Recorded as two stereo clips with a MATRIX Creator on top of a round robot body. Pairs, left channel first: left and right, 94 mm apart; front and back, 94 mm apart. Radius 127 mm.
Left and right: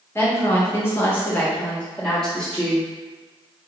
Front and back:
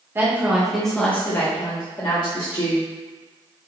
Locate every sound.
0.1 s a woman speaking: 130° left, 1.4 m; by 2.9 s 5° left, 2 m